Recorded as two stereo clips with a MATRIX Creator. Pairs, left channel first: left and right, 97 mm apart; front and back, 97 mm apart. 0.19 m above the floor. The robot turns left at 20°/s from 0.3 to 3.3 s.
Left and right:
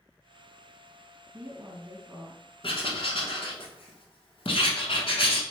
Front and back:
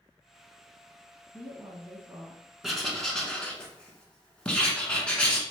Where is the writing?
95° left, 0.8 m; by 5.4 s 80° left, 0.8 m.